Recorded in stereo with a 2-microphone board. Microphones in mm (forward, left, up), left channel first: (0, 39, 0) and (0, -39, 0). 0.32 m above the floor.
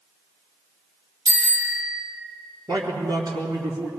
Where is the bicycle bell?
80° right, 6 m.